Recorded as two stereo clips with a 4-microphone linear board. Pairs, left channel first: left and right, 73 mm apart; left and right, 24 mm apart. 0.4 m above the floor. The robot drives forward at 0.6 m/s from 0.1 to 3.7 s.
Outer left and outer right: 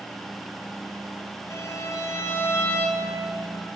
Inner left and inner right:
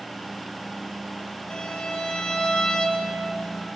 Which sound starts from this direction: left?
A violin, at 1.5 s.